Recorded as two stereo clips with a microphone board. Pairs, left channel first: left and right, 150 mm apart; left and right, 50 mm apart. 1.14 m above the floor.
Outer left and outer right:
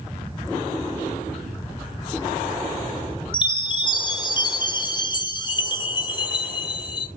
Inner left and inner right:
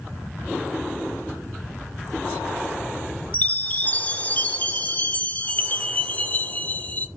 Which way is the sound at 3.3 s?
30° left (ahead or behind).